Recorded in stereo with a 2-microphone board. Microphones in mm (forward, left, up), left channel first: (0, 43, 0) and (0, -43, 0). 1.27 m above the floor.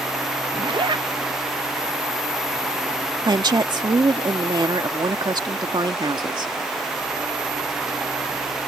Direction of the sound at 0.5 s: 65° right (ahead or behind).